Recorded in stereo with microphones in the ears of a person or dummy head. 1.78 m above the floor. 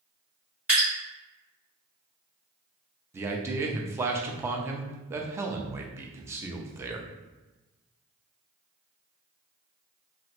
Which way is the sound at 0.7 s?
5° right (ahead or behind).